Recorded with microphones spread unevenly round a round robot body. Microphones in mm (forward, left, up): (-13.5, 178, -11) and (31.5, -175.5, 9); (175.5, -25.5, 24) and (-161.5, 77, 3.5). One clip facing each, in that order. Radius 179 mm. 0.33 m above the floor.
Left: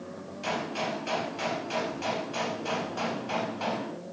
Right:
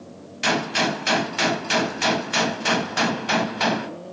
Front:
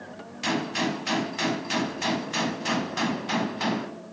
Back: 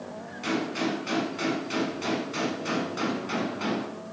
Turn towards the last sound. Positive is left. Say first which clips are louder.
# right 9 dB, even
turn(degrees=-80)